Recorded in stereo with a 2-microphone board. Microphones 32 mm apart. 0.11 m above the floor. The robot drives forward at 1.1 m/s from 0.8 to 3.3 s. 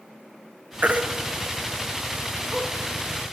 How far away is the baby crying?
About 1.4 m.